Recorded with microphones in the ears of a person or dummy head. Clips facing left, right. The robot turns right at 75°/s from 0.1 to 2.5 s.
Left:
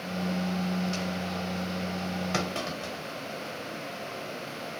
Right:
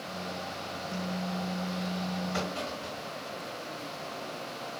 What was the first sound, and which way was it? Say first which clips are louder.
A clunk: left 2 dB; 80° left.